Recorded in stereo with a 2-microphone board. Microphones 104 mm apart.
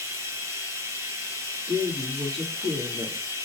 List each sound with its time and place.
0.0 s running water: 25° right (ahead or behind), 1.5 m
1.7 s a woman speaking: 70° right (ahead or behind), 4 m